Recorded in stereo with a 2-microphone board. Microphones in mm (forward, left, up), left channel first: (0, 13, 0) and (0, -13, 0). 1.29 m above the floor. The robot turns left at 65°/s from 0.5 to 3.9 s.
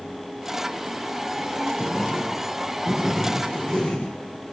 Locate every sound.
1.8 s writing: 90° right, 3 m; by 4.2 s 130° left, 3 m